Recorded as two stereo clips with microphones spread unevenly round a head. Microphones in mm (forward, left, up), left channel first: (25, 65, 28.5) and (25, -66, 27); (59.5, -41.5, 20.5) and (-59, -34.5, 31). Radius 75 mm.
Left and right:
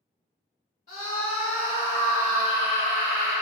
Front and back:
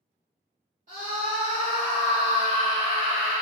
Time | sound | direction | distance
0.9 | a scream | 135° left | 2.5 m